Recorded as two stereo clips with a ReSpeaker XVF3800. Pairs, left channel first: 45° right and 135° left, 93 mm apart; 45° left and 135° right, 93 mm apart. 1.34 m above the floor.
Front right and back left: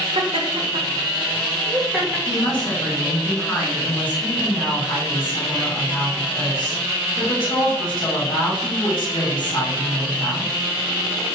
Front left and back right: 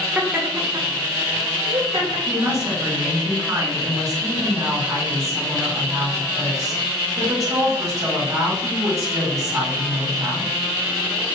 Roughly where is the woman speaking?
Right.